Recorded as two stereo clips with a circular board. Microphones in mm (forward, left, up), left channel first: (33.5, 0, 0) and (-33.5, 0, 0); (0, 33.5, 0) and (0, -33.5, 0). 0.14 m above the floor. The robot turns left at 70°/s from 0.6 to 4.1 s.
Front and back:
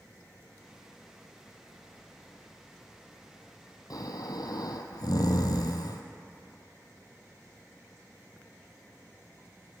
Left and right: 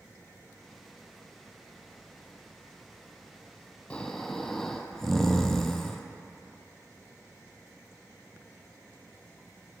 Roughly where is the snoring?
Ahead.